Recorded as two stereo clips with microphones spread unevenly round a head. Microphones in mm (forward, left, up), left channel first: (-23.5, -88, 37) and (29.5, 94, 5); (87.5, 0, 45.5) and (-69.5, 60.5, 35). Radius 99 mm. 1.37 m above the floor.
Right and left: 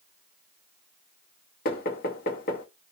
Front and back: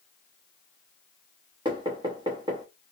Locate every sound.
1.6 s knocking: 130° right, 0.8 m